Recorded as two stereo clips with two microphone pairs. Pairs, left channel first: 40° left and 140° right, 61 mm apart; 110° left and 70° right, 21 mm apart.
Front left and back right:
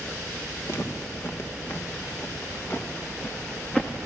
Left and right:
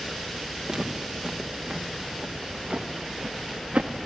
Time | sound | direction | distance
0.7 | footsteps | straight ahead | 3 m